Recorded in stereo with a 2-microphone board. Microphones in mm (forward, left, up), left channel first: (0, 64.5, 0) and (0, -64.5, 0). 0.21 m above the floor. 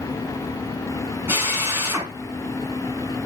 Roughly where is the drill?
Centre.